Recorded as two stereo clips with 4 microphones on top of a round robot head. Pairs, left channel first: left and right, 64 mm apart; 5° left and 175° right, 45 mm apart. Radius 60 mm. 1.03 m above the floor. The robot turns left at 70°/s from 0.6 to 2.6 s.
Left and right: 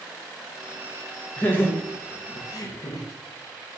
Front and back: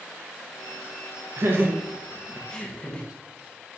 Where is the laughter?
160° left, 0.7 m; by 3.1 s 75° left, 0.7 m.